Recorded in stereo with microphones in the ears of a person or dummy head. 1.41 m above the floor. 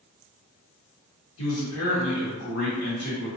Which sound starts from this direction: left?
A man speaking, at 1.4 s.